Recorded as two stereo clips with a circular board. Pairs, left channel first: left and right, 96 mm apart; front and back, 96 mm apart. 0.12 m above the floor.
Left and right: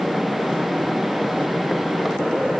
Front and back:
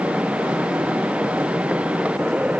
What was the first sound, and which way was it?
Only background noise.